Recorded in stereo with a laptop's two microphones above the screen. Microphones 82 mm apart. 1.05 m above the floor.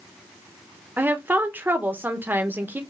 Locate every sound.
1.0 s a woman speaking: 25° right (ahead or behind), 0.9 m